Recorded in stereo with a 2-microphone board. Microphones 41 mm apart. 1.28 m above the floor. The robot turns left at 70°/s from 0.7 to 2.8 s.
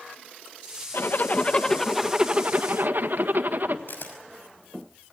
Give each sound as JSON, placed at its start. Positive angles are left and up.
{"t": 0.9, "sound": "a zipper", "azimuth_deg": 70, "distance_m": 1.6}
{"t": 3.9, "sound": "a camera shutter", "side_deg": 60, "distance_m": 5.5}